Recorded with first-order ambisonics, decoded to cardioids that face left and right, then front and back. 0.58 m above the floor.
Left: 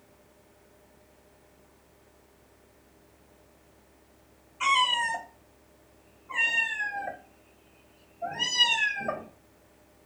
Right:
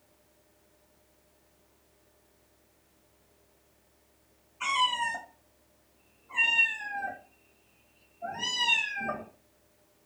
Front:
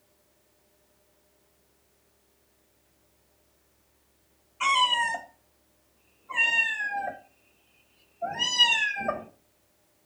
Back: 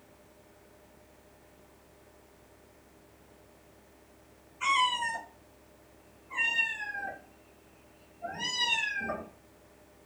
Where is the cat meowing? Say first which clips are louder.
Left 3 dB, front 4 dB; 35° left, 0.7 m.